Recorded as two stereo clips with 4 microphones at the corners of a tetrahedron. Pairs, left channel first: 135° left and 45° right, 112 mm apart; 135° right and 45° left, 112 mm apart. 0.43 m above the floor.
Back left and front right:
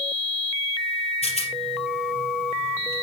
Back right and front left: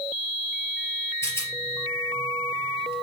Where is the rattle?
160° left, 3.5 m.